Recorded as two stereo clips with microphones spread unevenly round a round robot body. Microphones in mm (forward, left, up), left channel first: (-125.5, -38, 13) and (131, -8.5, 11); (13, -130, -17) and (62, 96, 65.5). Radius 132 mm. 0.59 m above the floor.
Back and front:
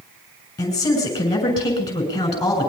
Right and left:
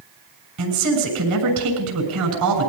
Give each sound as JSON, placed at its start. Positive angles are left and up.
{"t": 0.6, "sound": "a man speaking", "azimuth_deg": 110, "distance_m": 7.0}